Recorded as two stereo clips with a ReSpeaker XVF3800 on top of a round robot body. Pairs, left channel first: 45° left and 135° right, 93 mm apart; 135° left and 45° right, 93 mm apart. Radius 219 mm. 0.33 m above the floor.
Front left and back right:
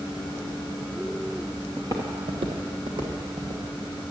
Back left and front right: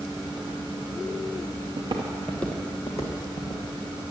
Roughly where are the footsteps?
Ahead right.